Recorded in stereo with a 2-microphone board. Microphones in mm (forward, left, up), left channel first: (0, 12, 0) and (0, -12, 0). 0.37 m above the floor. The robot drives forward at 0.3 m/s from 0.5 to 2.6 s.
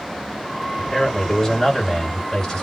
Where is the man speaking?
20° left (ahead or behind), 1.6 m; by 2.6 s 15° left (ahead or behind), 1.9 m.